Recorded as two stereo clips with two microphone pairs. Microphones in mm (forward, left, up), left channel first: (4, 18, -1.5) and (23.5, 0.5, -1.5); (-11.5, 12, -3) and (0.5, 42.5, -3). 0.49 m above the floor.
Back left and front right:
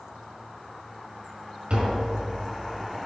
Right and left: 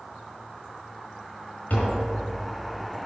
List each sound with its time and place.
1.7 s tapping: 85° right, 4.5 m